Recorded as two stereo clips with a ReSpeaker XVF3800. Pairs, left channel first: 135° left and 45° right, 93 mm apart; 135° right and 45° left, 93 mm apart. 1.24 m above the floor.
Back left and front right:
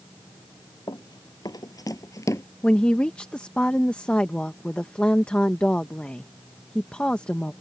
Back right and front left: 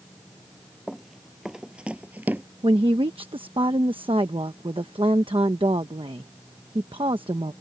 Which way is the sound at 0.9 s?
135° left.